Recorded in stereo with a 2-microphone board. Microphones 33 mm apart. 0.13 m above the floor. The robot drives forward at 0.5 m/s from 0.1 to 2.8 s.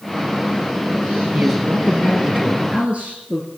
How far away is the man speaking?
About 2 m.